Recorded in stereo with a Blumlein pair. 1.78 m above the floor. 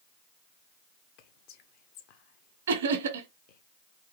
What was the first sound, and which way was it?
Whispering, 40° left.